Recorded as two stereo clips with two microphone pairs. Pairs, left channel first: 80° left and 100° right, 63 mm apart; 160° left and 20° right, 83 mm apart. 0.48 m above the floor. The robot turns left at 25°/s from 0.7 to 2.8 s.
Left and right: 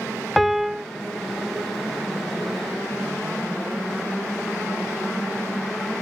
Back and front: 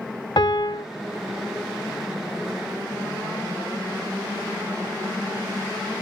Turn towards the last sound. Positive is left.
turn(degrees=120)